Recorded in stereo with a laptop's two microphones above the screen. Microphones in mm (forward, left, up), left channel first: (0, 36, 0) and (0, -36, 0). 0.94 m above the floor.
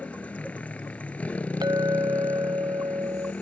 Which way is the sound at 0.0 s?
20° left (ahead or behind).